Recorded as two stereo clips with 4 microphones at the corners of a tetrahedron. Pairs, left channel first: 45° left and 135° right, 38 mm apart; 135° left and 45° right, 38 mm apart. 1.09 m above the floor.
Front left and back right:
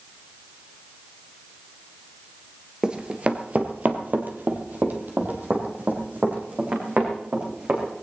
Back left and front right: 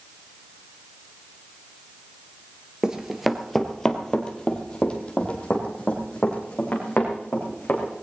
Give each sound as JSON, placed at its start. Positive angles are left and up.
{"t": 2.8, "sound": "running footsteps", "azimuth_deg": -95, "distance_m": 1.2}